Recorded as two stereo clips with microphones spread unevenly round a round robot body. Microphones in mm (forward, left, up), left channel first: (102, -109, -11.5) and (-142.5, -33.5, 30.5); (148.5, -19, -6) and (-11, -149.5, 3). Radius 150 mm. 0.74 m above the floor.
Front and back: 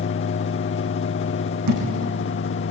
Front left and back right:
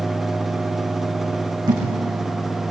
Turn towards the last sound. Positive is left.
turn(degrees=145)